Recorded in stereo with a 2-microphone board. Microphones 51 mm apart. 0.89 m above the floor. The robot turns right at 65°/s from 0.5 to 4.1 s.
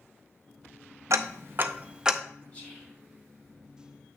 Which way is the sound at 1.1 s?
70° right (ahead or behind).